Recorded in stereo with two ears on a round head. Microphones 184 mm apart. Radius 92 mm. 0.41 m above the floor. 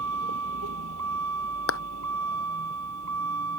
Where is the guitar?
No guitar in this recording.